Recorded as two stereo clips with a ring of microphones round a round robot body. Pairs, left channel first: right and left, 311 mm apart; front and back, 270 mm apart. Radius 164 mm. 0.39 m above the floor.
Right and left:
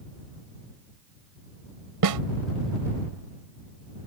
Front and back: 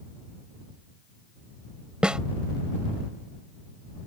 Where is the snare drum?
95° left.